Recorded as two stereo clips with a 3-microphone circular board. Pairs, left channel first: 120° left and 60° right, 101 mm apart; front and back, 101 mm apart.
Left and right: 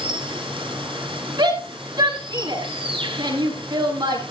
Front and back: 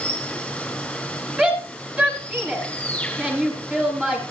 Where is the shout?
105° right, 9 m.